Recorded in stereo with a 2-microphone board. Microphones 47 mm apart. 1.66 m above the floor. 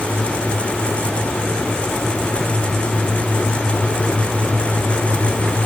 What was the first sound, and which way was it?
Only background noise.